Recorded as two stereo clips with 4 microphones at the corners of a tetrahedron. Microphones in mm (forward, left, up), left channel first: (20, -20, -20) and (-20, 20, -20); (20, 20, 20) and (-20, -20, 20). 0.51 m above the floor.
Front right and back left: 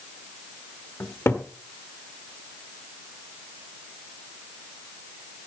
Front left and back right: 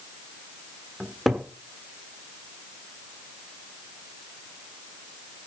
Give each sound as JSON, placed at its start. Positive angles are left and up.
{"t": 1.0, "sound": "a cupboard door", "azimuth_deg": -50, "distance_m": 1.4}